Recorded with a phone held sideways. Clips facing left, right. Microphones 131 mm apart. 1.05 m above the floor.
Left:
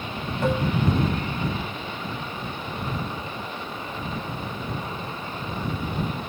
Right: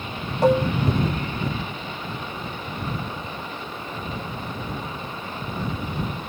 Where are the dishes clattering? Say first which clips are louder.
Right 6 dB; 35° right (ahead or behind).